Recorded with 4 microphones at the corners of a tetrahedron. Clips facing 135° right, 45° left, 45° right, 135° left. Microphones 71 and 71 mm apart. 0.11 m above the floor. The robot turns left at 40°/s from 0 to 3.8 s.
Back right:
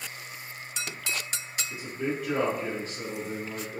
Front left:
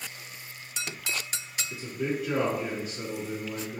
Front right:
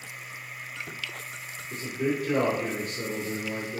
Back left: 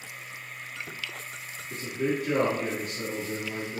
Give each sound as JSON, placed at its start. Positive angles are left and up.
{"t": 1.7, "sound": "a man speaking", "azimuth_deg": 150, "distance_m": 1.2}